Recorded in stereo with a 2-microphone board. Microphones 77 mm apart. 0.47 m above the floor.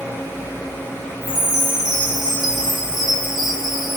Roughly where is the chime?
Right.